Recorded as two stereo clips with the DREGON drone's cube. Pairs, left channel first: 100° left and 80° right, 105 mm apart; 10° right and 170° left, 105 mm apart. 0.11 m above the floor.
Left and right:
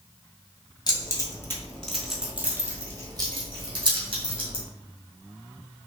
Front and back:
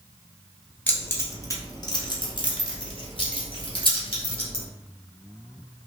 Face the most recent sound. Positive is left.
turn(degrees=-50)